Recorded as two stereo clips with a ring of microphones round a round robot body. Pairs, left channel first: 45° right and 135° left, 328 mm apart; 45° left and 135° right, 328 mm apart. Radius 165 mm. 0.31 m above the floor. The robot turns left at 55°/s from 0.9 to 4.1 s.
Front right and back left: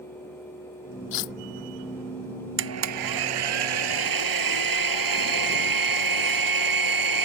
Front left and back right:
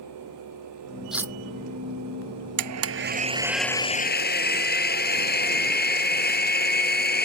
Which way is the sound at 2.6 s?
170° right.